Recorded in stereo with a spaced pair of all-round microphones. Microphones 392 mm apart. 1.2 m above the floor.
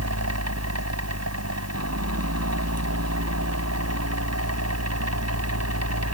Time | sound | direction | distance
0.0 | a fan | 45° right (ahead or behind) | ?